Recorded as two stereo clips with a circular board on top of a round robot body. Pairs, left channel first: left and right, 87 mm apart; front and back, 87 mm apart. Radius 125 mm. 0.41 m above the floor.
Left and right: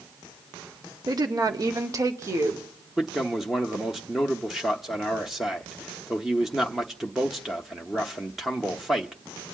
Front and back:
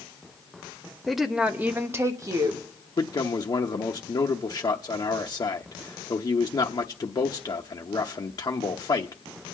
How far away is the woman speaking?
About 1.2 m.